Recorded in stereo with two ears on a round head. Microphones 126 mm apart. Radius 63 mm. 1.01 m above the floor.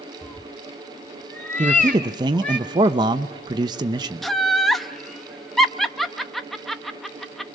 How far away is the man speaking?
About 0.7 m.